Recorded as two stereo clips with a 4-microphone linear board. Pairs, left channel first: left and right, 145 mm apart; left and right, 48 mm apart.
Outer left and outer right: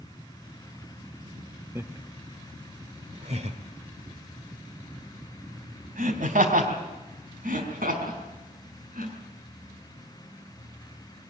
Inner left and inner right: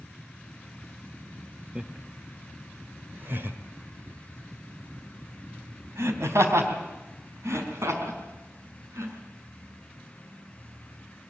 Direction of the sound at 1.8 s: 20° right (ahead or behind).